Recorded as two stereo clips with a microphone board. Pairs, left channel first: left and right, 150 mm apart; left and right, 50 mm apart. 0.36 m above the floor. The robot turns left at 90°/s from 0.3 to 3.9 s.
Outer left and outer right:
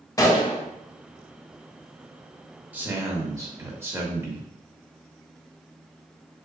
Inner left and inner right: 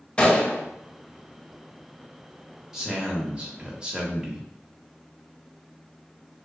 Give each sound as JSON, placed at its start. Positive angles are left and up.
{"t": 0.2, "sound": "a gunshot", "azimuth_deg": 155, "distance_m": 0.6}
{"t": 2.7, "sound": "a man speaking", "side_deg": -10, "distance_m": 0.9}